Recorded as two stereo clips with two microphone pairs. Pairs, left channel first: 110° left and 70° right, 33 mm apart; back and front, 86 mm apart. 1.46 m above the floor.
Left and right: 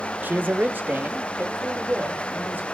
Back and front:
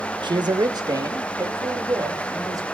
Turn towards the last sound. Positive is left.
turn(degrees=-50)